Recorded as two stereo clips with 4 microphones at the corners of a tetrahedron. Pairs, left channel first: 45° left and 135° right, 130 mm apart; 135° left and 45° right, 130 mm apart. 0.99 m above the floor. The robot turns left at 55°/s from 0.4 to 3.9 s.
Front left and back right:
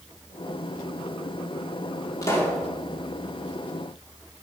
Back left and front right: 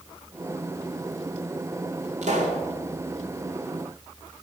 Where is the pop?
20° right, 2.5 m; by 2.6 s 40° right, 2.5 m.